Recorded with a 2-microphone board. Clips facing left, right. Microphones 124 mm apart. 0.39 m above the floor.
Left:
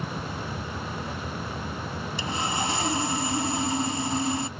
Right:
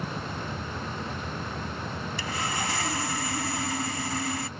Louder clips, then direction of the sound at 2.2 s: Left 4 dB; 25° left (ahead or behind).